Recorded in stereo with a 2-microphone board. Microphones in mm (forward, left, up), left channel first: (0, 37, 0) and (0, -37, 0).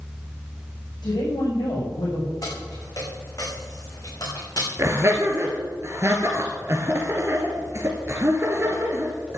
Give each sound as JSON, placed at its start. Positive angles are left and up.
{"t": 1.0, "sound": "a woman speaking", "side_deg": 75, "distance_m": 7.5}
{"t": 2.4, "sound": "keys jangling", "side_deg": 55, "distance_m": 5.5}
{"t": 4.8, "sound": "laughter", "side_deg": -40, "distance_m": 1.9}